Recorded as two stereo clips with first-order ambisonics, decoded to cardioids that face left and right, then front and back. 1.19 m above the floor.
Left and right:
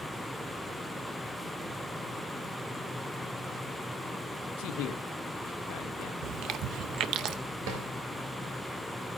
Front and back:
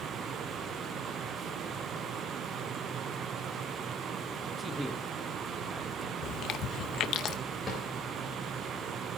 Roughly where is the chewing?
Ahead right.